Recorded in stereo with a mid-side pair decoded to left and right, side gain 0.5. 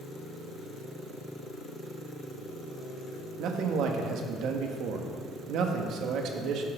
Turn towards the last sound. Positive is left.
turn(degrees=-70)